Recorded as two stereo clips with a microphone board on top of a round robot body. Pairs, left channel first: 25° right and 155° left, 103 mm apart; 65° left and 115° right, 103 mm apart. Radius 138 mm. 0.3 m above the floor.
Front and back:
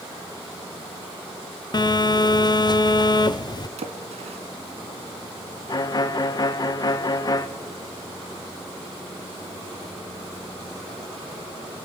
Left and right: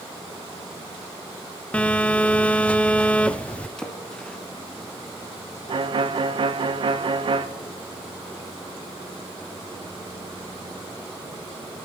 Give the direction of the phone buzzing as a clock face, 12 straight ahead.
12 o'clock.